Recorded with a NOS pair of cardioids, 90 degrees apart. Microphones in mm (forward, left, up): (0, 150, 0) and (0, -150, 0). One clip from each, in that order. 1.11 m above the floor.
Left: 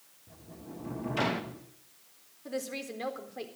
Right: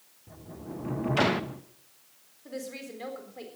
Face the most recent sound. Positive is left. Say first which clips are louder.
# left 2 dB
turn(degrees=25)